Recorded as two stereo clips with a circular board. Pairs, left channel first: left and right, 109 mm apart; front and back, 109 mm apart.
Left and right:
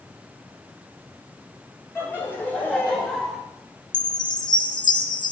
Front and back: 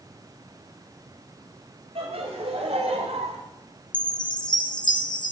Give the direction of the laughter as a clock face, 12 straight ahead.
7 o'clock.